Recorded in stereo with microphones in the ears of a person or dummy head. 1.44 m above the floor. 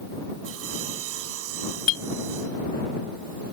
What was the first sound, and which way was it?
Sawing, 80° right.